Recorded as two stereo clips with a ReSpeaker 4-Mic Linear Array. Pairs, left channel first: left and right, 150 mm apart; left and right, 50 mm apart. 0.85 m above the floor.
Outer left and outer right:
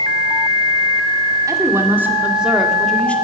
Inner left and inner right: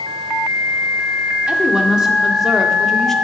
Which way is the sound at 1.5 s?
20° right (ahead or behind).